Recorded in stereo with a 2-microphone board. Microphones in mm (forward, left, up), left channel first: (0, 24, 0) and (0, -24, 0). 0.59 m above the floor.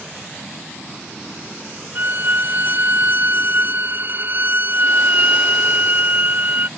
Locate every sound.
1.9 s a violin: 45° right (ahead or behind)